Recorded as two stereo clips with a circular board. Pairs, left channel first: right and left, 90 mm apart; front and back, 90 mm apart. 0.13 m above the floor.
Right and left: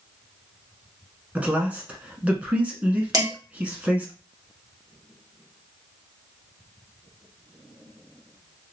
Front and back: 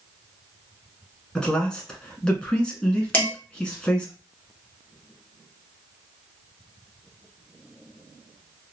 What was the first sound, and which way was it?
A man speaking, 60° left.